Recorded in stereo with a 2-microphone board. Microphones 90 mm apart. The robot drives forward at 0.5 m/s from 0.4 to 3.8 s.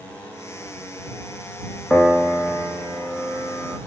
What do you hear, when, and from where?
1.9 s a piano: 10° left (ahead or behind), 3 m